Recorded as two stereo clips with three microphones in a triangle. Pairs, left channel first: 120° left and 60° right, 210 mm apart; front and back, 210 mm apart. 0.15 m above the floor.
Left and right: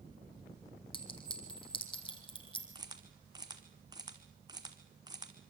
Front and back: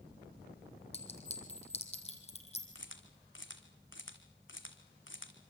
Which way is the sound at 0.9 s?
55° left.